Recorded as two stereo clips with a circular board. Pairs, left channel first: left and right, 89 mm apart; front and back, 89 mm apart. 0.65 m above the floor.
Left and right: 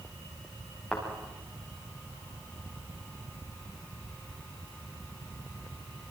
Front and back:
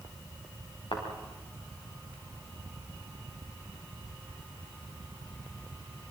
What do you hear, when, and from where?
0.9 s a thud: 5° left, 7.5 m